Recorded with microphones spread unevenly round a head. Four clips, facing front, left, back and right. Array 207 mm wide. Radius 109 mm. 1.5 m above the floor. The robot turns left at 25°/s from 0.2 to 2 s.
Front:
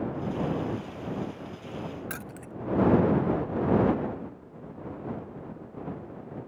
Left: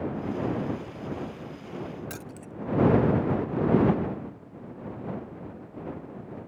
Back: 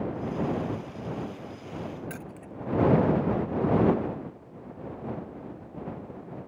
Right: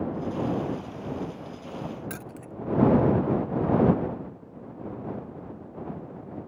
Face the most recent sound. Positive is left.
turn(degrees=-35)